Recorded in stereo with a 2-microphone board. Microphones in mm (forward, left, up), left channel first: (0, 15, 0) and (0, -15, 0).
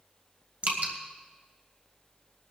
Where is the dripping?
70° right (ahead or behind), 3 m.